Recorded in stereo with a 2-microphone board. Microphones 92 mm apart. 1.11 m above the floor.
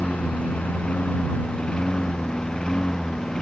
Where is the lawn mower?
15° left (ahead or behind); by 3.4 s 5° left (ahead or behind).